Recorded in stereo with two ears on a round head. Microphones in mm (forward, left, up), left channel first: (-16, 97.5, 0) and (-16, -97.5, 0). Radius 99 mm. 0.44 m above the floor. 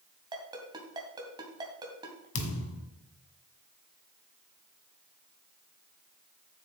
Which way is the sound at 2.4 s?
65° left (ahead or behind).